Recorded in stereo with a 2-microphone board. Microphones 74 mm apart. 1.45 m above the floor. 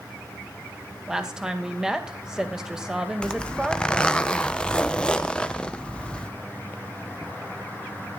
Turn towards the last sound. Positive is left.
turn(degrees=15)  # may be behind; listen again after turning